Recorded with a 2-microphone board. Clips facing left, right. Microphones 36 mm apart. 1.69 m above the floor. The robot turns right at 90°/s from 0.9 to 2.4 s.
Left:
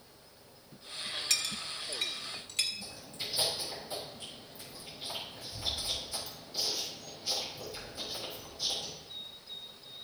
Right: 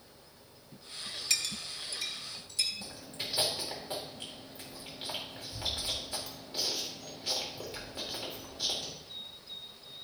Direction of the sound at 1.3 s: 5° right (ahead or behind).